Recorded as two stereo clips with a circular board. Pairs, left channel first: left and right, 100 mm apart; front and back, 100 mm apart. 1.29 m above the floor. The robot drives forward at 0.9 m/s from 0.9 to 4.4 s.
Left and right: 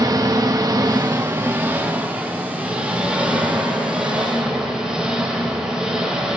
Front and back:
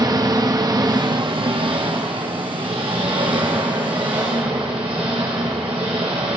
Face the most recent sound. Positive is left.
turn(degrees=-170)